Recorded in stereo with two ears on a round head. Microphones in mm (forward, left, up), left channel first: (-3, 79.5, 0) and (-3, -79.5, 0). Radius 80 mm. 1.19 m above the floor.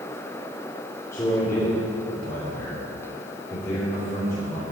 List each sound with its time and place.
1.1 s a man speaking: 15° left (ahead or behind), 3.5 m